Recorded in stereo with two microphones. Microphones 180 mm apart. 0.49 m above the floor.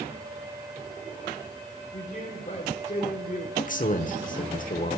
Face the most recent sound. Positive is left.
turn(degrees=50)  # may be behind; listen again after turning